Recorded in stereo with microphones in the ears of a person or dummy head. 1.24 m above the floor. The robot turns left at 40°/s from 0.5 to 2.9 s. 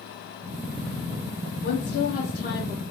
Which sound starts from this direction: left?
A woman speaking, at 1.6 s.